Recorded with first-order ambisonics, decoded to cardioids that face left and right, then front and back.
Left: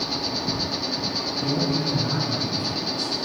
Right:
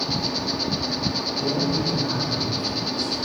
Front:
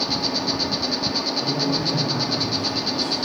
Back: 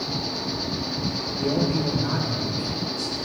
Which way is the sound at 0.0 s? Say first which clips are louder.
Right 1 dB, front 5 dB; 15° right.